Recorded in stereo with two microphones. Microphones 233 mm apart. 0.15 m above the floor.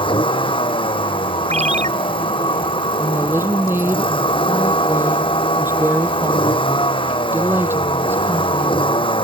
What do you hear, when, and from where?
0.0 s a vehicle: 20° left (ahead or behind)
1.5 s a ringtone: 30° right (ahead or behind)
3.0 s a woman speaking: 10° right (ahead or behind)